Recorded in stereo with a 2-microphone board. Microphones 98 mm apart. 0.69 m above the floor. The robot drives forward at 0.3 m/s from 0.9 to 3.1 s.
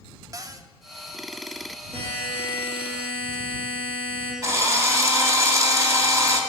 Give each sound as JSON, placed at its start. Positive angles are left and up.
{"t": 0.3, "sound": "a cupboard door", "side_deg": -35, "distance_m": 0.7}
{"t": 1.9, "sound": "a buzzer", "side_deg": -90, "distance_m": 7.5}
{"t": 4.4, "sound": "a drill", "side_deg": -30, "distance_m": 2.5}